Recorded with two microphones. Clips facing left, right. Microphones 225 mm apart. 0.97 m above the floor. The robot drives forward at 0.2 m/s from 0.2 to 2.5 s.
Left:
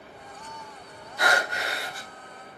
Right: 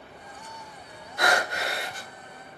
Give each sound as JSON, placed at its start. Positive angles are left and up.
{"t": 1.2, "sound": "breathing", "side_deg": -85, "distance_m": 1.9}